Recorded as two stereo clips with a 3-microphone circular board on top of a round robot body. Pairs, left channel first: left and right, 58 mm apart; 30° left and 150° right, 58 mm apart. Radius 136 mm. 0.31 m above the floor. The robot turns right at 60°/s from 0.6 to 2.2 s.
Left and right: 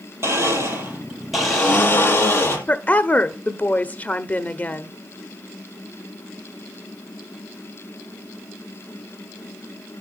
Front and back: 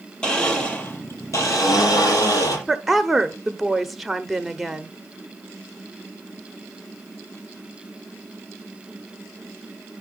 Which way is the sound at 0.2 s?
45° right.